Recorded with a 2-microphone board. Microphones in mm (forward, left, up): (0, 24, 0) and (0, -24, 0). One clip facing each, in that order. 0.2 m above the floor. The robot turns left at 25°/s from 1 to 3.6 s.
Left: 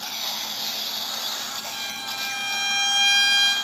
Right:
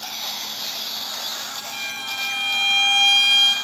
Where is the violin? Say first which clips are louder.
Right 6 dB; 15° right, 2 m; by 3.5 s 60° right, 2 m.